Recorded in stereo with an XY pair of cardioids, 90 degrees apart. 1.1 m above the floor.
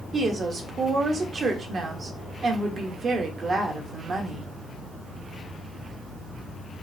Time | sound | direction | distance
0.1 | a woman speaking | 50° right | 1.2 m